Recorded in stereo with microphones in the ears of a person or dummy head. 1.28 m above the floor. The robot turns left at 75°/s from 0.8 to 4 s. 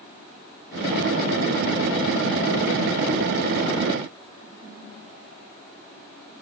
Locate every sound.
Only background noise.